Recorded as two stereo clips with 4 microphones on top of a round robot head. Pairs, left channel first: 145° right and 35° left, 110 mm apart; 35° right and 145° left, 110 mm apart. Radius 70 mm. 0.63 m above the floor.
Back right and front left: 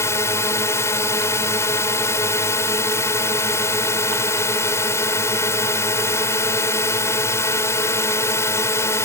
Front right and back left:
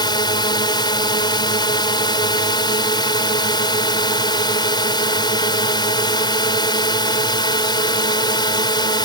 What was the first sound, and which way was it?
A drone, 80° right.